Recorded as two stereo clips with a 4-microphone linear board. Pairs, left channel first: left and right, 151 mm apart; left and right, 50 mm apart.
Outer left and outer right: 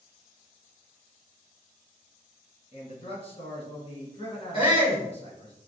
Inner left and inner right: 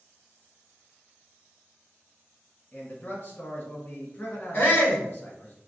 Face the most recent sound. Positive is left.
turn(degrees=40)  # may be behind; listen again after turning